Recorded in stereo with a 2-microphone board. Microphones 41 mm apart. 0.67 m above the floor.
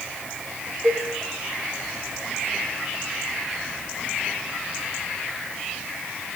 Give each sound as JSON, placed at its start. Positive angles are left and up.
{"t": 0.8, "sound": "a cowbell", "side_deg": -15, "distance_m": 7.5}